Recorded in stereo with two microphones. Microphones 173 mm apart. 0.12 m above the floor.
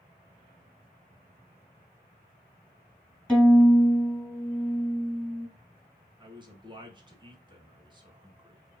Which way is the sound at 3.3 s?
5° left (ahead or behind).